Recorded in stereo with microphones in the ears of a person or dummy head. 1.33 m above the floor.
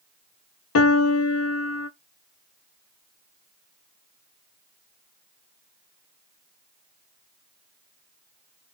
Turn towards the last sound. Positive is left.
turn(degrees=80)